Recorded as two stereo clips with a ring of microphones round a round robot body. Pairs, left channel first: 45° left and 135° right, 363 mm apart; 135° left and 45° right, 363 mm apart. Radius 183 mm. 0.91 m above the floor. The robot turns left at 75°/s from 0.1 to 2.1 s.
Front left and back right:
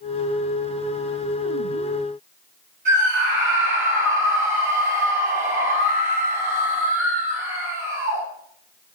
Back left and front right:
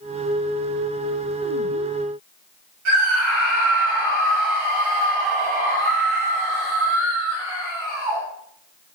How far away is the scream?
About 6.5 m.